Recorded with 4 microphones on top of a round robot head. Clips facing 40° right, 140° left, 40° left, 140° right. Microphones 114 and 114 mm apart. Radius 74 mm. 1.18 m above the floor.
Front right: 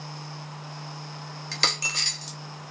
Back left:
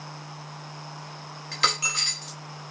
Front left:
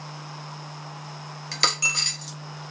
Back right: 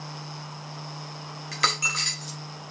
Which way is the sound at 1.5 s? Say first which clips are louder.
Back left 4 dB, back right 1 dB; 10° right.